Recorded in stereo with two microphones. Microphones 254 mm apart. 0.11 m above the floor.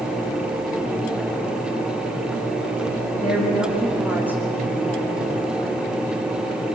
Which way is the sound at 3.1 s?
5° right (ahead or behind).